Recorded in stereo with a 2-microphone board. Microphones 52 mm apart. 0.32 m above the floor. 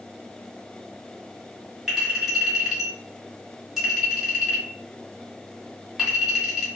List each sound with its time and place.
1.9 s a clink: 5° right (ahead or behind), 1.6 m